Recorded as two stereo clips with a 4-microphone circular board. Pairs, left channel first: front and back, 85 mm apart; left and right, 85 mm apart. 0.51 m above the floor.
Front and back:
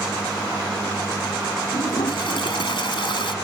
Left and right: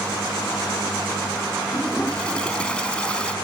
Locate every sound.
1.7 s a toilet flushing: 10° left